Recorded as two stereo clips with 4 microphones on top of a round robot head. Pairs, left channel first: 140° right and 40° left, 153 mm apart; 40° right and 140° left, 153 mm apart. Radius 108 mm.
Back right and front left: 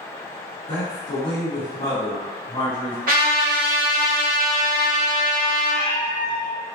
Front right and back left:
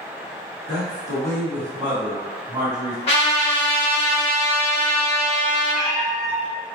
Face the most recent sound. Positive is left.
turn(degrees=-100)